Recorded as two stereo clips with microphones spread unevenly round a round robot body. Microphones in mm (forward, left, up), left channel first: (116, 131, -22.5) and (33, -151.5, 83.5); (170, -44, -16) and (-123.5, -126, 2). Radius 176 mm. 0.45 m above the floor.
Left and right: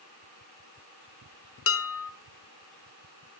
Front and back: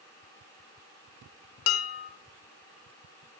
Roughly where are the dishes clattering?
Ahead left.